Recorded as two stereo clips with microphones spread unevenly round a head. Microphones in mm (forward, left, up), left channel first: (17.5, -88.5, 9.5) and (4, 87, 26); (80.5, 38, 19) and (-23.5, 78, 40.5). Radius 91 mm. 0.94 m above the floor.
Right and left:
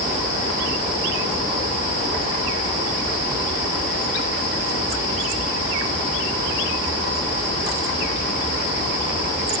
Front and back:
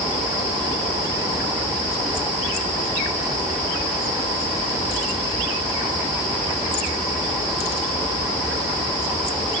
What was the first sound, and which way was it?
Only background noise.